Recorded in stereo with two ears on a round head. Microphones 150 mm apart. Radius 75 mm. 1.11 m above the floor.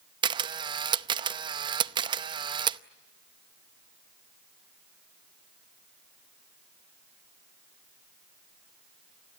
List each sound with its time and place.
0.2 s a camera shutter: 30° right (ahead or behind), 0.7 m